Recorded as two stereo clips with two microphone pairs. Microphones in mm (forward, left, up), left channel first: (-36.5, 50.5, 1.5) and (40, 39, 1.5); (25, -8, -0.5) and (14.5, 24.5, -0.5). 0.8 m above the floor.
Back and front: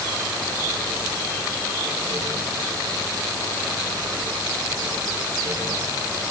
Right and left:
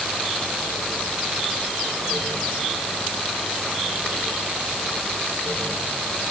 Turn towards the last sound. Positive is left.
No sound to turn to.